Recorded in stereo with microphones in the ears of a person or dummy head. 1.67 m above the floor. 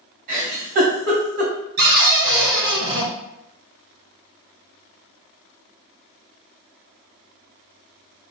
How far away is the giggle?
About 1.9 m.